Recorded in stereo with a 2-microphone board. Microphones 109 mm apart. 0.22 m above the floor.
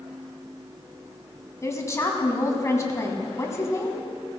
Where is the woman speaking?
25° left (ahead or behind), 2 m.